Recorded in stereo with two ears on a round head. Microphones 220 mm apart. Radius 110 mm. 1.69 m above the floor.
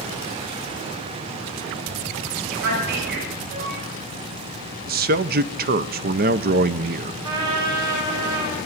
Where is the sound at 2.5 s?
60° right (ahead or behind), 7.5 m.